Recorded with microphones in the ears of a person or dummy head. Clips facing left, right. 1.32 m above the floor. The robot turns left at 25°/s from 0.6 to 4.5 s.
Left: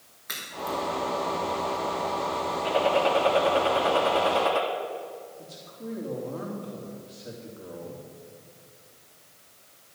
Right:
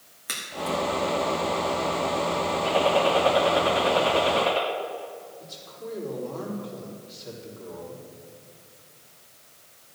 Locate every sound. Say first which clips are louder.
0.3 s a crack: right 3 dB; 40° right (ahead or behind), 2.5 m; by 0.8 s 35° right (ahead or behind), 2.5 m
2.6 s a gunshot: right 1 dB; 165° left, 2 m; by 4.6 s 115° left, 2 m
5.4 s a man speaking: right 1 dB; 35° left (ahead or behind), 3 m